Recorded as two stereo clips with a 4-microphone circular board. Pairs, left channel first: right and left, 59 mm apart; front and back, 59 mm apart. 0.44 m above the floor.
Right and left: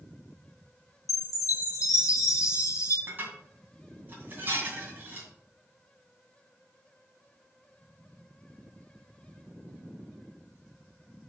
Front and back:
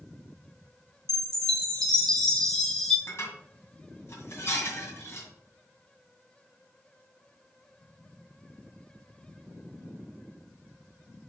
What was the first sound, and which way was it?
A chime, 85° right.